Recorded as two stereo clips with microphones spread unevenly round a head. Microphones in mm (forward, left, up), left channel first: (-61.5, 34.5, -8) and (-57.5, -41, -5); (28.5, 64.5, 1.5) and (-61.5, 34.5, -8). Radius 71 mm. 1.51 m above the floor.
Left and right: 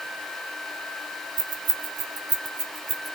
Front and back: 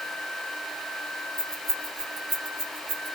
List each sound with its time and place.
1.4 s keys jangling: 80° right, 0.9 m; by 3.1 s 120° right, 1.5 m